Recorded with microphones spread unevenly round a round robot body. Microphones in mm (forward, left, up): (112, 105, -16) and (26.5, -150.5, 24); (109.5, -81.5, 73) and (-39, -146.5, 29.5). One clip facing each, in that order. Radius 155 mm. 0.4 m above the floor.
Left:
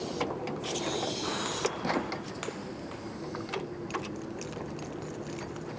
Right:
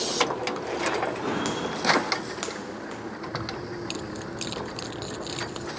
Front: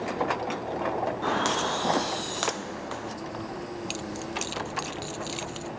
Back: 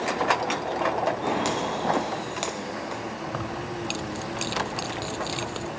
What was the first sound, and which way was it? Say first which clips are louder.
Footsteps: right 5 dB, back 2 dB; 80° right.